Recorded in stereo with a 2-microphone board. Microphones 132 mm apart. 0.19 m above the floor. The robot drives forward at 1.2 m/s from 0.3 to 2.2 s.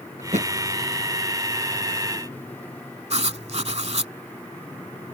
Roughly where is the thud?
Right.